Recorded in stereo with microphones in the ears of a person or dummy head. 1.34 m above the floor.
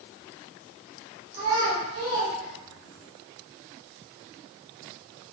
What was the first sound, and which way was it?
A child speaking, 70° right (ahead or behind).